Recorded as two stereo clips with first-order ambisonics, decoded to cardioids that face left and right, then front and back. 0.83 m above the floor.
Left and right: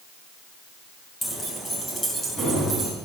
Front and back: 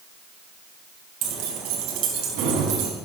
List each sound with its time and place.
1.2 s keys jangling: 170° left, 4 m; by 2.9 s straight behind, 5 m